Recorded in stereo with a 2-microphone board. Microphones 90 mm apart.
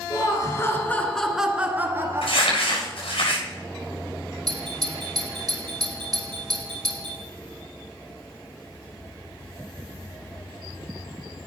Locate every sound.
0.1 s laughter: 40° left (ahead or behind), 1.9 m; by 3.0 s 40° right (ahead or behind), 2.5 m
2.2 s crumpling: 85° left, 6.5 m
4.5 s a doorbell: 50° right (ahead or behind), 3 m